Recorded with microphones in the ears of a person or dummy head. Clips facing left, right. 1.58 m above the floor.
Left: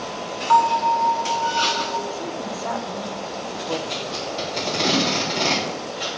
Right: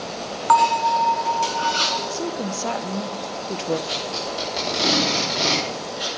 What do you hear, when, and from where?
0.5 s a bell: 60° right (ahead or behind), 1.0 m
2.1 s a woman speaking: 40° right (ahead or behind), 0.8 m
3.9 s tape being pulled: 10° right (ahead or behind), 4 m